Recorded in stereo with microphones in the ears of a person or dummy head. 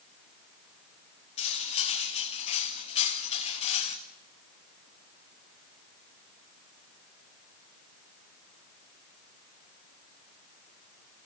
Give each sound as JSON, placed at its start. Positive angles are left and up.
{"t": 1.4, "sound": "cutlery clinking", "side_deg": 30, "distance_m": 1.5}